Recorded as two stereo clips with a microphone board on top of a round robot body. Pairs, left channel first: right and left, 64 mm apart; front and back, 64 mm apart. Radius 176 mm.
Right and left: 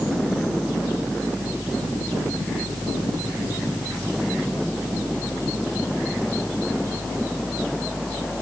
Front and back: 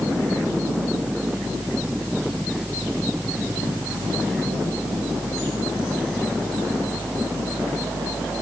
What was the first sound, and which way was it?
Only background noise.